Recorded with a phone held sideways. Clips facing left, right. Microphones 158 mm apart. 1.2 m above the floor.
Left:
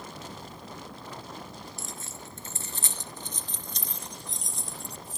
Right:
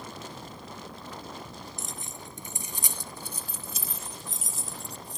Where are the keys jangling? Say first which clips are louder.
Even; 20° right (ahead or behind); by 5.2 s centre (ahead or behind).